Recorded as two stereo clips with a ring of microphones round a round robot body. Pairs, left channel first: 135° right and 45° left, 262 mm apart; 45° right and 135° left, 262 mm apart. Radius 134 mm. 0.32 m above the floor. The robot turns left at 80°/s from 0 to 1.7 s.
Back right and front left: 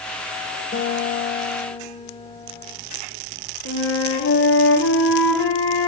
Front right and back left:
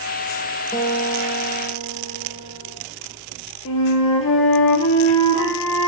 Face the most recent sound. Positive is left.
turn(degrees=-85)